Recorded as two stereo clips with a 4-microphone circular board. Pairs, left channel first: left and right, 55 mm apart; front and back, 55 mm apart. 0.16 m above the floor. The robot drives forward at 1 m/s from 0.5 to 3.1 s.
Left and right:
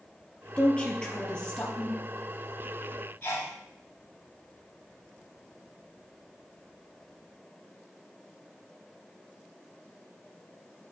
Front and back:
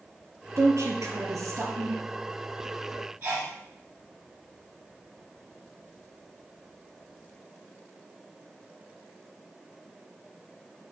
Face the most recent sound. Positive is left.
turn(degrees=145)